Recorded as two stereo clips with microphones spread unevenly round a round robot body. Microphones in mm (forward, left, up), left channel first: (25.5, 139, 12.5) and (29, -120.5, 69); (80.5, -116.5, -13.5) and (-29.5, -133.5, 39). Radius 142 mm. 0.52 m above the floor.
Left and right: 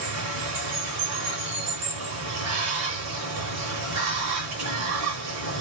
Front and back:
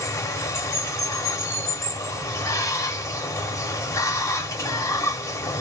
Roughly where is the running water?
Ahead right.